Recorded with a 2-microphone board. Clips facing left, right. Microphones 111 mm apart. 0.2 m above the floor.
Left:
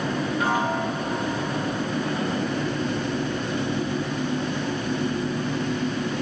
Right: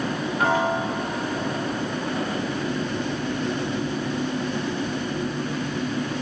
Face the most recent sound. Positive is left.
turn(degrees=-60)  # may be behind; listen again after turning